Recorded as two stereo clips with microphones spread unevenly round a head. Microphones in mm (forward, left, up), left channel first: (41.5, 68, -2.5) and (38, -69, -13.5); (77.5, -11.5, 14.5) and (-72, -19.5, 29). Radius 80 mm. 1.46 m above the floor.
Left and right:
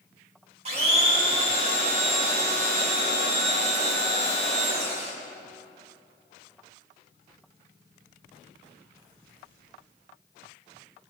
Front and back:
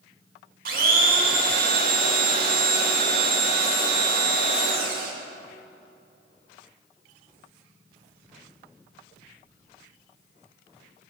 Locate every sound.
0.7 s a blender: 145° right, 2 m